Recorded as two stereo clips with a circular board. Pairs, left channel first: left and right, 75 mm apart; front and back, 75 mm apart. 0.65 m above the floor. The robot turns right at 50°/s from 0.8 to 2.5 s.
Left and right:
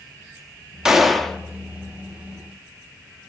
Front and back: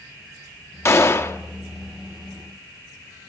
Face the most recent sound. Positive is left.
turn(degrees=70)